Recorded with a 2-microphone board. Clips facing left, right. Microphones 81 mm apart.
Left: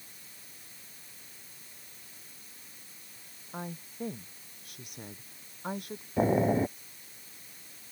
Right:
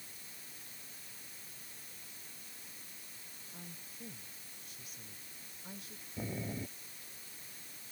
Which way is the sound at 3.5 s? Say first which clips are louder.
Left 14 dB; 55° left (ahead or behind).